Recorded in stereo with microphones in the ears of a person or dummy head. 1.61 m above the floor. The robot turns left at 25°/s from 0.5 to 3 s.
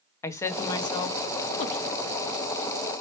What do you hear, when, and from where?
0.2 s a woman speaking: 20° left (ahead or behind), 0.5 m; by 1.9 s 45° left (ahead or behind), 0.5 m